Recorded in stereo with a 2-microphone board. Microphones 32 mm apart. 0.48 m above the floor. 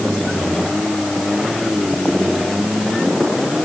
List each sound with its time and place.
Only background noise.